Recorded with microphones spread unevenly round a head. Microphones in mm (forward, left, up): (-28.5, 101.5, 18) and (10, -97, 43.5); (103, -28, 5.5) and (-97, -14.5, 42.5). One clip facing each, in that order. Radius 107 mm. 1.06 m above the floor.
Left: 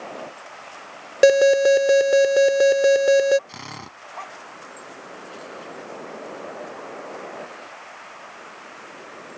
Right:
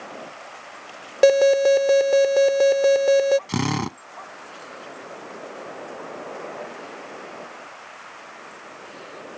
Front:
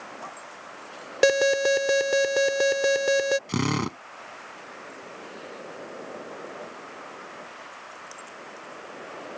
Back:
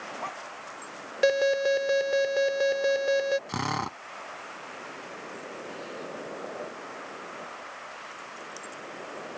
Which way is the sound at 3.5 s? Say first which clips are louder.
Right 16 dB, front 7 dB; 55° right.